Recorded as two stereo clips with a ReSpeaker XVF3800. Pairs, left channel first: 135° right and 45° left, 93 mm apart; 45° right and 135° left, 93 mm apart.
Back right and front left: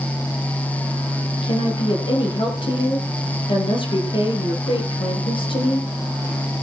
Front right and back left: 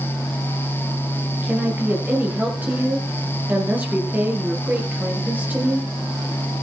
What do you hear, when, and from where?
1.4 s a woman speaking: 155° right, 4.5 m